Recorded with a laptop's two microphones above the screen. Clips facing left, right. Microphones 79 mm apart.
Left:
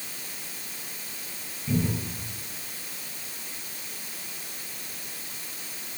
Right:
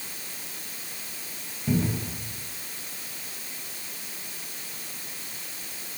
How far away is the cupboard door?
About 4 m.